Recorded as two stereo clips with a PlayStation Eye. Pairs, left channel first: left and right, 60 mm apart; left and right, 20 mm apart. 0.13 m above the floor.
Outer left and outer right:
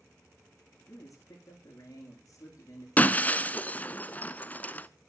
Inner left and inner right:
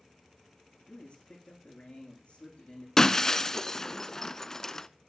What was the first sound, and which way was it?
A man speaking, 60° left (ahead or behind).